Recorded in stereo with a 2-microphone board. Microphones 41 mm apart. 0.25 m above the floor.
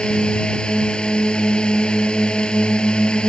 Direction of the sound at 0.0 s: 20° left (ahead or behind).